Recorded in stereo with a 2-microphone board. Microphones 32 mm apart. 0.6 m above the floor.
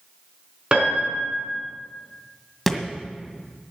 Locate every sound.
0.7 s a piano: 30° right (ahead or behind), 4.5 m
2.7 s a thud: centre (ahead or behind), 1.8 m